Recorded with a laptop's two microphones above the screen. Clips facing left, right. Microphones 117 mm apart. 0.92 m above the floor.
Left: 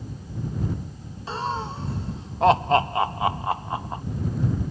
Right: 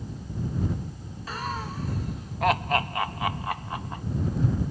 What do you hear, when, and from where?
1.3 s laughter: 25° left (ahead or behind)